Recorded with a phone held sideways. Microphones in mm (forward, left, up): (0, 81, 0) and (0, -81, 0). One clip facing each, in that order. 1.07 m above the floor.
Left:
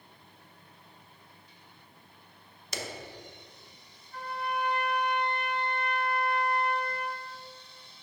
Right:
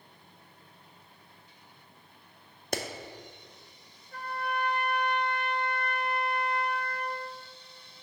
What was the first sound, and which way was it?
A clap, 55° right (ahead or behind).